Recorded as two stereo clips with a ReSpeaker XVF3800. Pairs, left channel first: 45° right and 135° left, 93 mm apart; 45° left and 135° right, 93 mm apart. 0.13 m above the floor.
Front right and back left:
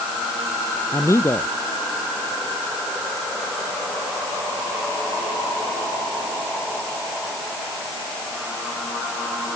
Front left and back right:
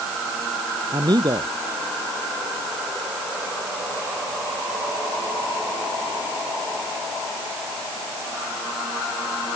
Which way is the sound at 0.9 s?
100° right.